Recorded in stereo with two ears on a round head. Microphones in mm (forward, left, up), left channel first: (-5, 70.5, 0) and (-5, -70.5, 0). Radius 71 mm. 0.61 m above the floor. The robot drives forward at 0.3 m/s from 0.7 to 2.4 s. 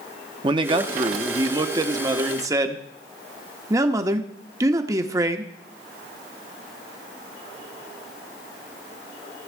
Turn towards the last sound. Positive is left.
turn(degrees=-20)  # may be behind; listen again after turning